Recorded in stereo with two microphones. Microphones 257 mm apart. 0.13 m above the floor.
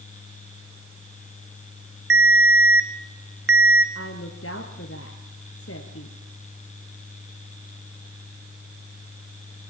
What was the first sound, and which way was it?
A ringtone, 60° right (ahead or behind).